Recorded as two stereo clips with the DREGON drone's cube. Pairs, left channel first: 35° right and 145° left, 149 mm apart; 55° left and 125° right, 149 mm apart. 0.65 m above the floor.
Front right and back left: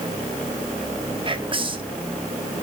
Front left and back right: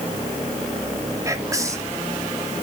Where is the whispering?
Straight behind, 1.5 m.